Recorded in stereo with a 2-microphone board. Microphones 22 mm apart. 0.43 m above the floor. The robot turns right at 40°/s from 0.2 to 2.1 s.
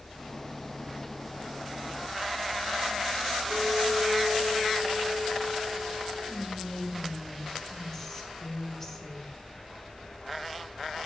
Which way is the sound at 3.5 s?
45° left (ahead or behind).